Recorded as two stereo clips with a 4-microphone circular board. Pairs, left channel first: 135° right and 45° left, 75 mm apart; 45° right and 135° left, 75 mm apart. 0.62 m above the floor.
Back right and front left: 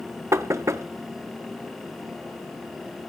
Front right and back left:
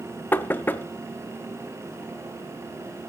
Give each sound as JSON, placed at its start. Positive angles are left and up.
{"t": 0.3, "sound": "knocking", "azimuth_deg": 10, "distance_m": 0.6}